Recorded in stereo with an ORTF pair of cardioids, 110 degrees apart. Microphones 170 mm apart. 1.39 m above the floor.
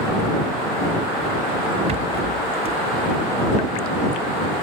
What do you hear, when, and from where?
1.9 s a rattle: 35° right